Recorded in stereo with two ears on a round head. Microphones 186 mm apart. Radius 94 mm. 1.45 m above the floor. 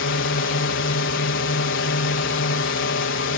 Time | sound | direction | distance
0.0 | a drone | 65° left (ahead or behind) | ?